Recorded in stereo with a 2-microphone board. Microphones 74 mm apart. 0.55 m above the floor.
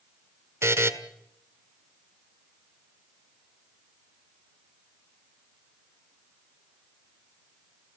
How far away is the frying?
I don't hear frying.